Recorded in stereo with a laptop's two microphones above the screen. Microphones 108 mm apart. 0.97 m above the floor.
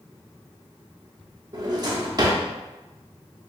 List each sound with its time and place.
1.5 s a drawer: 40° right (ahead or behind), 0.7 m